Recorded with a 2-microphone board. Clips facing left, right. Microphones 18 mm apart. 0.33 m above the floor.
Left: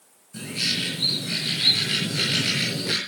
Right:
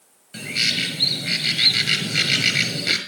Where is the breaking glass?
No breaking glass in this recording.